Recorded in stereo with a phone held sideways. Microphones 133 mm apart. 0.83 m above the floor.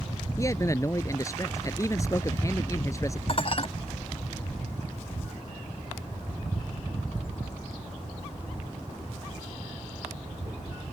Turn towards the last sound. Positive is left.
turn(degrees=45)  # may be behind; listen again after turning